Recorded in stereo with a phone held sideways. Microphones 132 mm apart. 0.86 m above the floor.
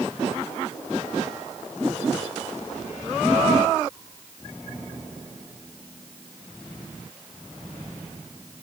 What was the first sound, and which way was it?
Only background noise.